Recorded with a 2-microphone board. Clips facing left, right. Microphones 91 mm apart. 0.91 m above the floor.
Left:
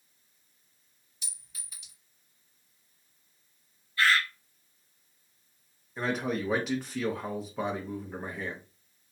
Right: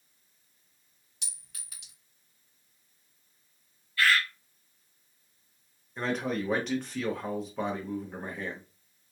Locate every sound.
1.2 s a clink: 75° right (ahead or behind), 1.4 m
4.0 s a bird: 25° left (ahead or behind), 0.7 m
6.0 s a man speaking: 5° left (ahead or behind), 0.7 m